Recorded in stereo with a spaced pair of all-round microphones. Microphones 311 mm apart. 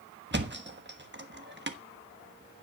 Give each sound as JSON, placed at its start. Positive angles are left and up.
{"t": 0.3, "sound": "a thud", "side_deg": -35, "distance_m": 1.3}